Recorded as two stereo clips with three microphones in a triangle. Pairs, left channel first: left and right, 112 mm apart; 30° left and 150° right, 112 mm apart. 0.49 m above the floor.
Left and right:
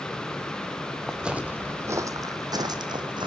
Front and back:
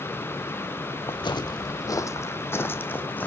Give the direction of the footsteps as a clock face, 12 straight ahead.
12 o'clock.